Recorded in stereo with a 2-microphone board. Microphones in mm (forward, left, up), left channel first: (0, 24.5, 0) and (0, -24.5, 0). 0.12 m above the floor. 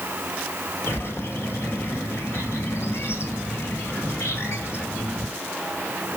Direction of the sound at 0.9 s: 60° left (ahead or behind).